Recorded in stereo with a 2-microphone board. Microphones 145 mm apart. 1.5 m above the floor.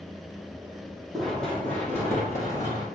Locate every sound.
1.1 s running footsteps: centre (ahead or behind), 3.5 m; by 2.9 s 30° left (ahead or behind), 4 m